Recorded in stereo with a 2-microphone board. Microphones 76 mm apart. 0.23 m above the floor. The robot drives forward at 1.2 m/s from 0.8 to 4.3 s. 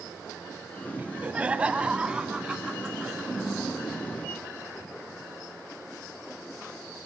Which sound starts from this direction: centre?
Laughter, at 1.0 s.